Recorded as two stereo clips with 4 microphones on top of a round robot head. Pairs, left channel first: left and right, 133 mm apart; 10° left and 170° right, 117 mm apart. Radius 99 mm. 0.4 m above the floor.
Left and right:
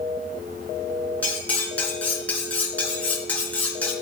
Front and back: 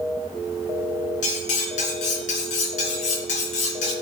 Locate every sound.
1.2 s cutlery clinking: 10° left, 3.5 m